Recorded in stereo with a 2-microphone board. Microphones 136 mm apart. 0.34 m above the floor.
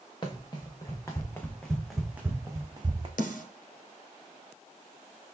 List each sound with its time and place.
0.2 s running footsteps: 35° left (ahead or behind), 1.5 m; by 3.1 s 40° right (ahead or behind), 1.0 m
3.2 s a snare drum: 85° left, 1.3 m